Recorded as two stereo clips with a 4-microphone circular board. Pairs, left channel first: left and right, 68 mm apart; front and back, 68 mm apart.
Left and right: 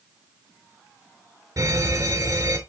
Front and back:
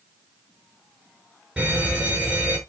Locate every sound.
1.6 s a fire alarm: 100° right, 4.5 m